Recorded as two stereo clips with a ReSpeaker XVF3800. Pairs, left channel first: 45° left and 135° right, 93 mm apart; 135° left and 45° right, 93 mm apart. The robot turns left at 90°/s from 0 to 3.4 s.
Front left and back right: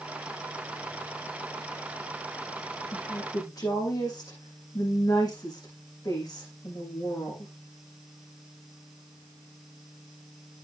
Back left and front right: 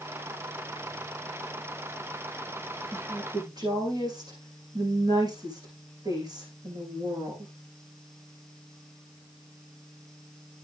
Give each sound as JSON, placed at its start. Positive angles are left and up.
{"t": 2.9, "sound": "a woman speaking", "azimuth_deg": 40, "distance_m": 8.5}